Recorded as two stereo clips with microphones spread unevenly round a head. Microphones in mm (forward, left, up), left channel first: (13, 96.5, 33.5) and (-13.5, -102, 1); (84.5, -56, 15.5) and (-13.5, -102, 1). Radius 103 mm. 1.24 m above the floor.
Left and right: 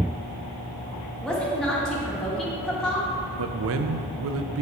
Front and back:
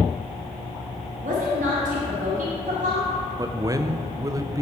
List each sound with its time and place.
1.2 s a woman speaking: 170° left, 1.7 m
3.4 s a man speaking: 95° right, 0.6 m